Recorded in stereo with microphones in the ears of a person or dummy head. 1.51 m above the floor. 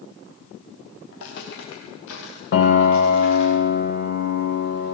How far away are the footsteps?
About 9.5 m.